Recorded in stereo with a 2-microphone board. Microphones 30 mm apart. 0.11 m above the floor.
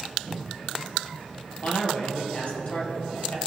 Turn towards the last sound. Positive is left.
turn(degrees=50)  # may be behind; listen again after turning